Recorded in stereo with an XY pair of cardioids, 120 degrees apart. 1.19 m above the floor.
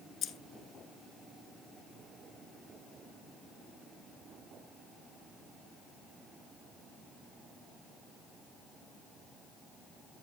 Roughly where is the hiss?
I don't hear a hiss.